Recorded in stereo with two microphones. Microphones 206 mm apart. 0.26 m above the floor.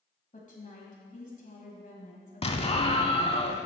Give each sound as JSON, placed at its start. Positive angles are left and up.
{"t": 0.3, "sound": "a woman speaking", "side_deg": 40, "distance_m": 1.7}
{"t": 2.4, "sound": "an explosion", "side_deg": 30, "distance_m": 0.5}